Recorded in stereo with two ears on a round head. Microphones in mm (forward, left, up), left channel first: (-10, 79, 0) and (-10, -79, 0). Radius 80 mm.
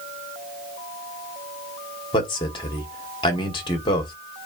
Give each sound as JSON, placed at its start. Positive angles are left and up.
{"t": 2.1, "sound": "a man speaking", "side_deg": 25, "distance_m": 1.5}